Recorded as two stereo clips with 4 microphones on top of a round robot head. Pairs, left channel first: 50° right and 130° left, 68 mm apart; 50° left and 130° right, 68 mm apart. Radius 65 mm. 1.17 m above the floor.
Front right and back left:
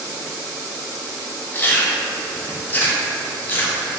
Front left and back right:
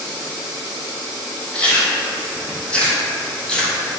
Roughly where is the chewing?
Ahead.